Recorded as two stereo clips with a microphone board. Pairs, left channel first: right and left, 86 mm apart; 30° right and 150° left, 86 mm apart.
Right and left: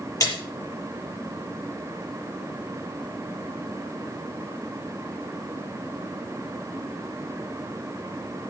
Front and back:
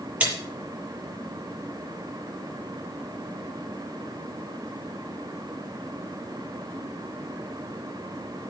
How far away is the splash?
About 6 m.